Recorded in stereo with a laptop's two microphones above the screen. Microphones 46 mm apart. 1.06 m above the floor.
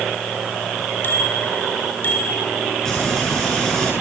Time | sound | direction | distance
1.0 | a bicycle bell | 50° left (ahead or behind) | 4.5 m
2.9 | frying | 10° left (ahead or behind) | 7.5 m